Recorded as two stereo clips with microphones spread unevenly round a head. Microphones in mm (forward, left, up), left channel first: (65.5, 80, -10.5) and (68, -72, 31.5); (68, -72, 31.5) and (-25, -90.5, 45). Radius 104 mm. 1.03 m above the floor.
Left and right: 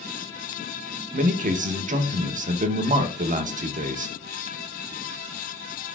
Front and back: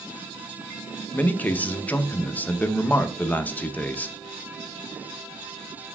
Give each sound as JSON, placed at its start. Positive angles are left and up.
{"t": 1.1, "sound": "a man speaking", "azimuth_deg": -50, "distance_m": 0.7}